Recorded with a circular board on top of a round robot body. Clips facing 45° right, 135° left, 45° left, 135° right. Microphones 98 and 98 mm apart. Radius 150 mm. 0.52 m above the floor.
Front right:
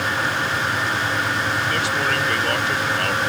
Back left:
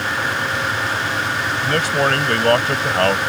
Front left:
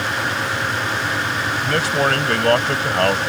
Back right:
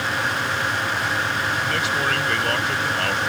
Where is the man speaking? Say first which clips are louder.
Back left 4 dB, front left 4 dB; 90° left.